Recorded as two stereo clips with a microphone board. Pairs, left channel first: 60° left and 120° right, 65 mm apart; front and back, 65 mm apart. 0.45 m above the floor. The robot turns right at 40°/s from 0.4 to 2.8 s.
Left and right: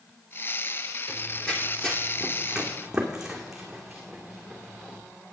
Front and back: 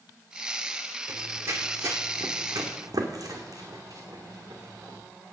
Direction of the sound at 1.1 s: 130° left.